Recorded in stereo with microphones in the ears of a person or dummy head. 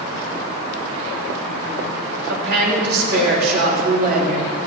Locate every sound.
2.3 s a woman speaking: 65° right (ahead or behind), 4 m; by 4.5 s 45° right (ahead or behind), 4 m